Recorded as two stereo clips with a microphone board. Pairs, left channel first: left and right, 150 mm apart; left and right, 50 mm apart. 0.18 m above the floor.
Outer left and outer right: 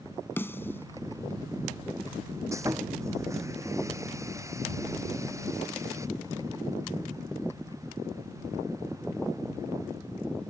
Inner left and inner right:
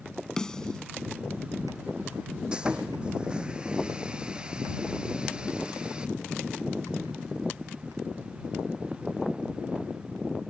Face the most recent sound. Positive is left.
turn(degrees=-20)  # may be behind; listen again after turning